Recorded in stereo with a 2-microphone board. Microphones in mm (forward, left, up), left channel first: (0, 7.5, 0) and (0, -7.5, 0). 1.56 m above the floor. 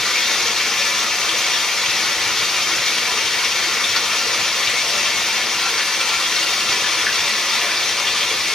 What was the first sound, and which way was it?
Running water, 55° left (ahead or behind).